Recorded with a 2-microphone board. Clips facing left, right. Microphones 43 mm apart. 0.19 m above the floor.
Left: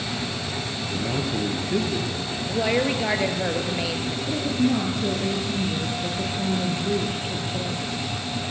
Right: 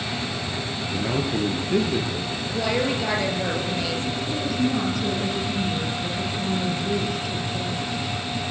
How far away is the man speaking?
About 4 m.